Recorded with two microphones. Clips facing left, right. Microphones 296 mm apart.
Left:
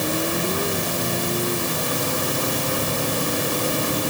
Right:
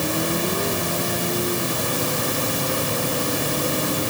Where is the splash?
No splash in this recording.